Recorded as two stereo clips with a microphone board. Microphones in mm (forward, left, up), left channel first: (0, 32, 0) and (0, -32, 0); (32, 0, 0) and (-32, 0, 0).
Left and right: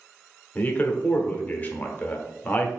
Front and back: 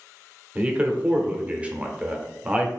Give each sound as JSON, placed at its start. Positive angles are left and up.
{"t": 0.6, "sound": "a man speaking", "azimuth_deg": 125, "distance_m": 0.8}